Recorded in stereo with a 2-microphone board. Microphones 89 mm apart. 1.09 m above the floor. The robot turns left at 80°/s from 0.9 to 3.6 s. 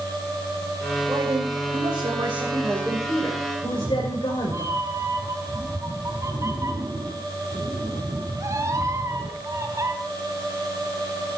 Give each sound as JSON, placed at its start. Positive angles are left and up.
{"t": 1.1, "sound": "a man speaking", "azimuth_deg": -30, "distance_m": 6.0}
{"t": 3.6, "sound": "a cat meowing", "side_deg": -35, "distance_m": 3.5}